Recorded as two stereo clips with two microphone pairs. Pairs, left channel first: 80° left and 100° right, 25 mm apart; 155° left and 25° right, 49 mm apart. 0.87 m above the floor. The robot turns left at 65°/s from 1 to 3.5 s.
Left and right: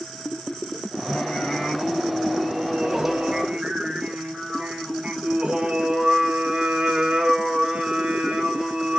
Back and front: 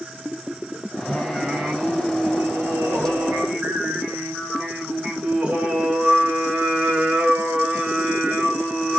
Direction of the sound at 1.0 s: 75° left.